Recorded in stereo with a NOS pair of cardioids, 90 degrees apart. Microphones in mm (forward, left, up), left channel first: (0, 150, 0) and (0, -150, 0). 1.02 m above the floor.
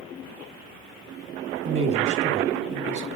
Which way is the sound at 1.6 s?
40° right.